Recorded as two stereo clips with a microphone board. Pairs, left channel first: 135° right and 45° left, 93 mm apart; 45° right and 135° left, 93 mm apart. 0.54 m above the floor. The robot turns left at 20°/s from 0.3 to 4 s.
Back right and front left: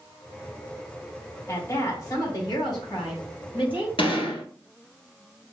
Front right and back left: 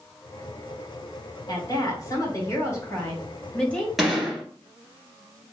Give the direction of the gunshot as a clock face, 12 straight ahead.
5 o'clock.